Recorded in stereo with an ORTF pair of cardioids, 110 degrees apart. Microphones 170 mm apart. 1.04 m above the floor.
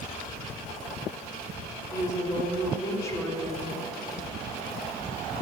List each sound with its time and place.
1.9 s a woman speaking: 20° left, 3.5 m